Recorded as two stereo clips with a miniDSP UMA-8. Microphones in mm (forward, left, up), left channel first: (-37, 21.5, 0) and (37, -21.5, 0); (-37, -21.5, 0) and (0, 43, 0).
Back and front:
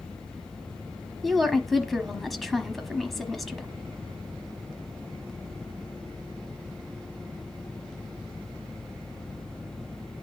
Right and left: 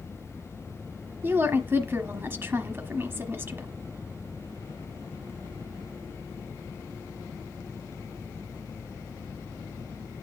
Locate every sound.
1.2 s a woman speaking: 65° left, 1.0 m